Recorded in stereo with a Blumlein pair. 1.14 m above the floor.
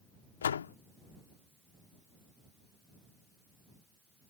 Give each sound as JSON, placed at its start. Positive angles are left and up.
{"t": 0.4, "sound": "a door slam", "azimuth_deg": 65}